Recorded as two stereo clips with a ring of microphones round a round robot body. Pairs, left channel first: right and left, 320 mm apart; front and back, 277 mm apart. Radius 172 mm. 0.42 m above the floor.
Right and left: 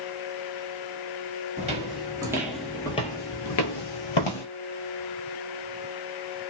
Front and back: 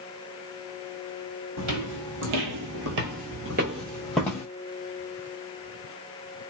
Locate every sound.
1.6 s footsteps: 160° left, 1.2 m; by 4.5 s 80° right, 0.8 m